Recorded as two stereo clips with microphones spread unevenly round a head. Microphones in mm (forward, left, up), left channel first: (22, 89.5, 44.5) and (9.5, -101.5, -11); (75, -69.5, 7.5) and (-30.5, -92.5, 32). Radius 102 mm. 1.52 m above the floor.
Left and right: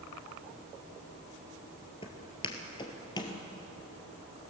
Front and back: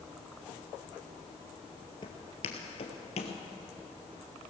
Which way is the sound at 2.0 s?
70° left.